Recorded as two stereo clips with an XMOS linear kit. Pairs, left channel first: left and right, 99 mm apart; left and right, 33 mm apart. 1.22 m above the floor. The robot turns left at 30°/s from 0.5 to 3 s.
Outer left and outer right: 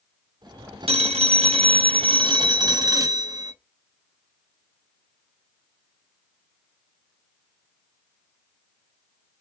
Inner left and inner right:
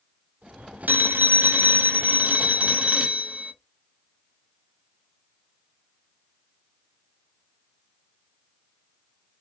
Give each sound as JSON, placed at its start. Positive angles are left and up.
{"t": 0.9, "sound": "a phone ringing", "azimuth_deg": -85, "distance_m": 0.5}